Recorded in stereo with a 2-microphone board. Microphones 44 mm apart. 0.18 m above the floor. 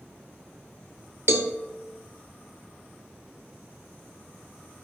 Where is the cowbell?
55° right (ahead or behind), 0.8 m.